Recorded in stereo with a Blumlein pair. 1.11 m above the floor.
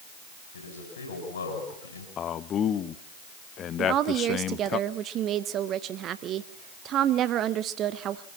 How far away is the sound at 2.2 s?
About 0.9 m.